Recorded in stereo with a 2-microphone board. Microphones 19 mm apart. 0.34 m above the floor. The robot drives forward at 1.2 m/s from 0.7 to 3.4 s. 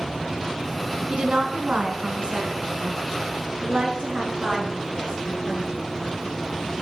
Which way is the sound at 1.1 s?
70° right (ahead or behind).